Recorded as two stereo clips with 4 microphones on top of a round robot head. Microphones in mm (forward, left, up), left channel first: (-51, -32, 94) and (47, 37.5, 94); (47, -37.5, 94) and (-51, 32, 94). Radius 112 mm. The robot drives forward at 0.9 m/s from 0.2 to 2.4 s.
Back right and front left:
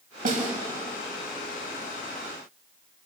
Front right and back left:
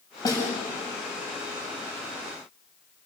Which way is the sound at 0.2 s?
25° left.